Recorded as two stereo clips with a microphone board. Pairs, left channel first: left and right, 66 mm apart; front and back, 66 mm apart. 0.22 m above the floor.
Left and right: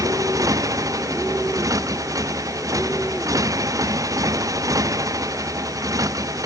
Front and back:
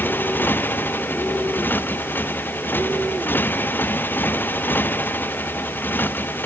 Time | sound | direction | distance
0.0 | a motorcycle | 60° right | ?